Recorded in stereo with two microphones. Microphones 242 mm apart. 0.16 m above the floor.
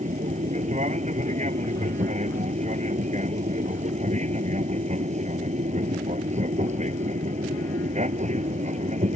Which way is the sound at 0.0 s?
30° right (ahead or behind).